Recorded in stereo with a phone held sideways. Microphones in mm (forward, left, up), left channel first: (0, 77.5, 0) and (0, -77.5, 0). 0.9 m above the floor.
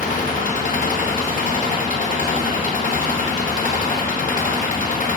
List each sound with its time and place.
0.0 s an engine running: 60° left (ahead or behind), 0.9 m